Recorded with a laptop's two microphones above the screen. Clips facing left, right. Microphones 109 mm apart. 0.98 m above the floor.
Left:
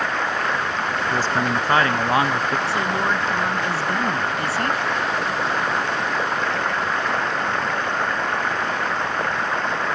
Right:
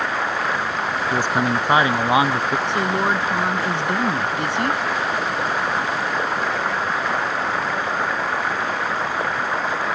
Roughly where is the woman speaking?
Right.